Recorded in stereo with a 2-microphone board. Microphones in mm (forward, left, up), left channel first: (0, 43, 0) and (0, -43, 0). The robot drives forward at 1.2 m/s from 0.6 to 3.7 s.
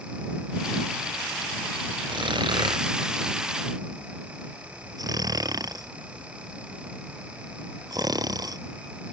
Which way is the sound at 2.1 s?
70° right (ahead or behind).